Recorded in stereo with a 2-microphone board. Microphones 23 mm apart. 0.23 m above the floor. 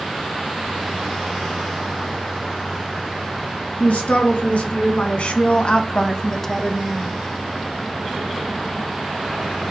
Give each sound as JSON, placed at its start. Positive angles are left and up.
{"t": 3.8, "sound": "a man speaking", "side_deg": 70, "distance_m": 3.0}